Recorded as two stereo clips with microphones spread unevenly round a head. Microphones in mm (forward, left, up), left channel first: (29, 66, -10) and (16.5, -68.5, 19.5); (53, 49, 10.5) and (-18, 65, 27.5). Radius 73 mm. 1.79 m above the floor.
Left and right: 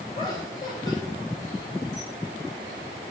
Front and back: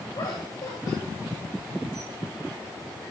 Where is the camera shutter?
150° left, 6.5 m.